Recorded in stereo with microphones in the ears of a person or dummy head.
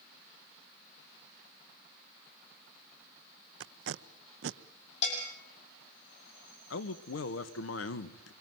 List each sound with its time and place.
3.6 s tape being pulled: 70° right (ahead or behind), 0.8 m
5.0 s a bell: 40° left (ahead or behind), 8.5 m
6.7 s a man speaking: 80° left, 1.6 m